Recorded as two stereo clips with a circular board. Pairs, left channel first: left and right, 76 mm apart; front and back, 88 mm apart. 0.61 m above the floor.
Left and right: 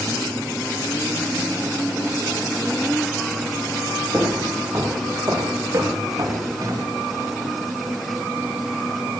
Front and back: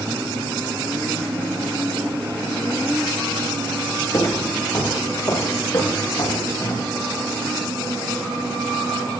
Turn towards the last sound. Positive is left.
turn(degrees=-50)